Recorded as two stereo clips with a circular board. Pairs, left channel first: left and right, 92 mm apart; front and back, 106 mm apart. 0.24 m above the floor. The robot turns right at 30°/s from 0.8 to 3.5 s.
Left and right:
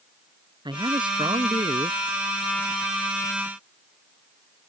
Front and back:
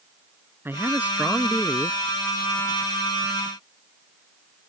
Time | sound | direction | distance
0.7 | a man speaking | 115° right | ?